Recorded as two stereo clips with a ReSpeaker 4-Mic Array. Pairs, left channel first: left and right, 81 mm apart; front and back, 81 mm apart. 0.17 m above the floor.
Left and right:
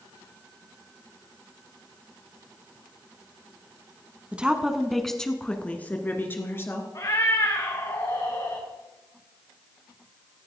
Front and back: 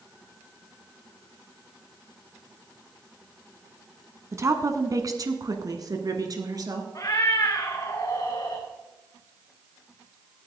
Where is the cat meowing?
45° left, 3 m.